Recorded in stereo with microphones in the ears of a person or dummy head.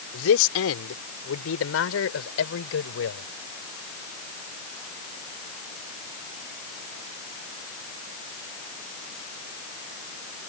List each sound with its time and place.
0.1 s a man speaking: 80° left; by 3.3 s 85° left